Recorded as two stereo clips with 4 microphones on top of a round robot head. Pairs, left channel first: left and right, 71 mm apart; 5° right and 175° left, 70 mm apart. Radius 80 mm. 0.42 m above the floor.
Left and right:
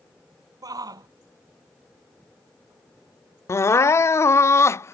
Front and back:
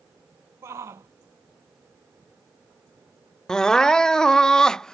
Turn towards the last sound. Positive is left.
turn(degrees=70)